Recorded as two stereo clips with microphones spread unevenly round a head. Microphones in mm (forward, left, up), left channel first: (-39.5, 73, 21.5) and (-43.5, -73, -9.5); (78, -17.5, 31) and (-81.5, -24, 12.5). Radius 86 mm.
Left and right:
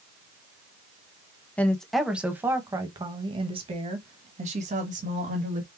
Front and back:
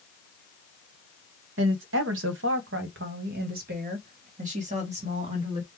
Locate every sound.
1.6 s a woman speaking: 165° left, 1.1 m; by 5.7 s 125° right, 2 m